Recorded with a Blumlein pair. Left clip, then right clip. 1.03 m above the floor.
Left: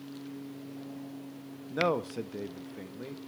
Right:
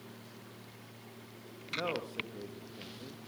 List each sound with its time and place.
1.7 s a man speaking: 65° left, 1.3 m